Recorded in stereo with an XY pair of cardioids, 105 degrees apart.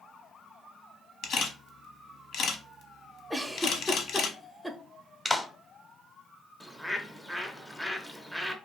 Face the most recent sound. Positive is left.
turn(degrees=0)